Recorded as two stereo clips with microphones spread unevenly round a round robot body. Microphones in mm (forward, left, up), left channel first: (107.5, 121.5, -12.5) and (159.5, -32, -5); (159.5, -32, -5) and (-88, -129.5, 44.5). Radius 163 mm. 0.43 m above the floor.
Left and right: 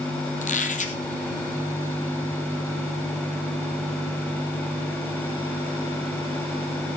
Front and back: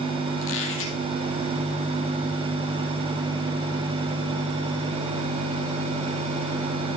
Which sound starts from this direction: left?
A squeak, at 0.4 s.